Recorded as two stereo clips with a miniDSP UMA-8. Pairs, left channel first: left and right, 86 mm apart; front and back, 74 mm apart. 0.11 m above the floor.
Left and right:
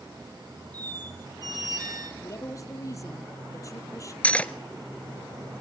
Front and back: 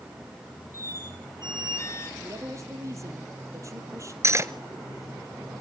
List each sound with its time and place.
0.7 s a squeak: 50° right, 3 m
2.2 s a woman speaking: 135° left, 3.5 m
4.2 s cutlery clinking: 155° left, 1.0 m